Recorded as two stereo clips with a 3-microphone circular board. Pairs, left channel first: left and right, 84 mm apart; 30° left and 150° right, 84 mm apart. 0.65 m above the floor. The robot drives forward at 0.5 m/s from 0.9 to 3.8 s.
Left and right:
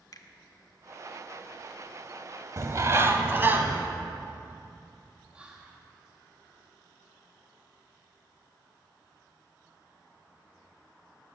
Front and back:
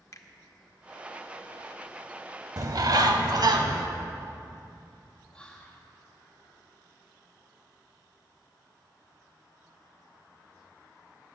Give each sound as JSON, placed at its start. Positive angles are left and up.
{"t": 0.1, "sound": "a finger snap", "azimuth_deg": 65, "distance_m": 0.8}
{"t": 2.6, "sound": "a bird", "azimuth_deg": -125, "distance_m": 0.6}
{"t": 5.3, "sound": "whispering", "azimuth_deg": -30, "distance_m": 1.0}